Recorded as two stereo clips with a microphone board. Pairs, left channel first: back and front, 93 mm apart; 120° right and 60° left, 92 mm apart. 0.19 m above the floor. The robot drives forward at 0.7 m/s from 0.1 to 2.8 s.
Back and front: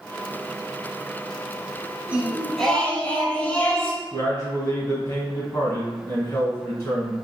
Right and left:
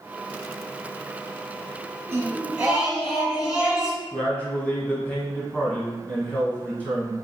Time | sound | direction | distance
2.1 | singing | 50° left | 0.9 m
4.1 | a man speaking | straight behind | 1.3 m